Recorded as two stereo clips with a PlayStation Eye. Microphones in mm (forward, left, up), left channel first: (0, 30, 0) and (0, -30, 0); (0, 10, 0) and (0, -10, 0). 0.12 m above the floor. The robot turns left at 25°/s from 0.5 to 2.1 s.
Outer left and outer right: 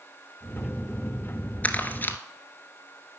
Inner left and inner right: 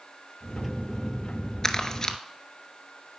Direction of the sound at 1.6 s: 30° left (ahead or behind).